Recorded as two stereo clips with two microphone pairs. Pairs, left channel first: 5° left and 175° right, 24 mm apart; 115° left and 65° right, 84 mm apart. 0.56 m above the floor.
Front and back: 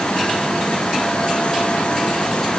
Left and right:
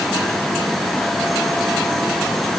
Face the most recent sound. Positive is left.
No sound to turn to.